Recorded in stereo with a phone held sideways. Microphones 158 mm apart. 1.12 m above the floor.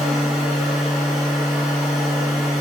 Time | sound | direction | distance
0.0 | a machine running | centre (ahead or behind) | 4.5 m